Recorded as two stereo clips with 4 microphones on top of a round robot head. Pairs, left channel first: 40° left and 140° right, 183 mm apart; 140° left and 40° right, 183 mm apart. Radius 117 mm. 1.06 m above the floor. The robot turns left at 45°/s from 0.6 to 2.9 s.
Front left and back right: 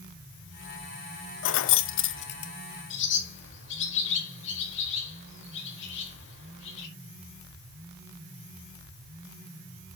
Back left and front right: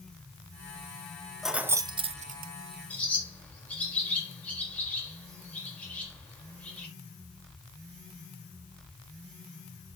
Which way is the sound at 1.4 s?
50° left.